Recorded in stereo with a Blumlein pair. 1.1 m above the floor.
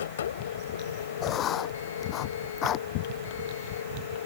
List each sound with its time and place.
0.0 s a machine running: 65° left
1.2 s writing: 30° left